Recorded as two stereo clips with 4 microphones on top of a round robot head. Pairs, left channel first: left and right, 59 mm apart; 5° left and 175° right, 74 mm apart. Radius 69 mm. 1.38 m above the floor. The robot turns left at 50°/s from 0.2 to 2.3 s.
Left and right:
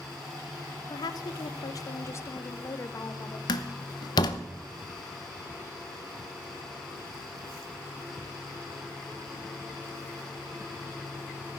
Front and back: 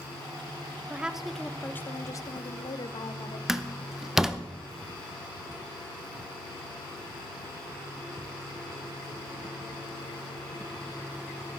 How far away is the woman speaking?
About 0.9 m.